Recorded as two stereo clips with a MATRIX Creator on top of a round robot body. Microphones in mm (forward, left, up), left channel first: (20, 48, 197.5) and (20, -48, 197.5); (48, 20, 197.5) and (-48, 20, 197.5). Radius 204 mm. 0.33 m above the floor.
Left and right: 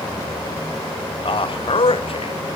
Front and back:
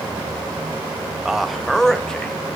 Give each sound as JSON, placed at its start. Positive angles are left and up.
{"t": 1.2, "sound": "a man speaking", "azimuth_deg": 95, "distance_m": 1.4}